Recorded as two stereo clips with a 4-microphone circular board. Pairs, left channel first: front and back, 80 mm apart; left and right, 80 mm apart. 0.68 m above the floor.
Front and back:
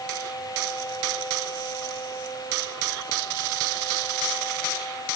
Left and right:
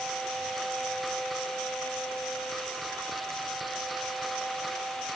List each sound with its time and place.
Only background noise.